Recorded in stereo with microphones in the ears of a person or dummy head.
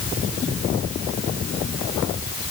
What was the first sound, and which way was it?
Only background noise.